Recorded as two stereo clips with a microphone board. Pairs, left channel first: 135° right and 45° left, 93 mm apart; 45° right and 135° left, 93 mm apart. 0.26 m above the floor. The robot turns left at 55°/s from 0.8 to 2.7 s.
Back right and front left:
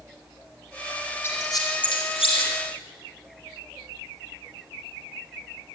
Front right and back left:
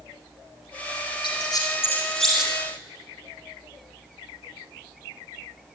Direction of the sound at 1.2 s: 75° right.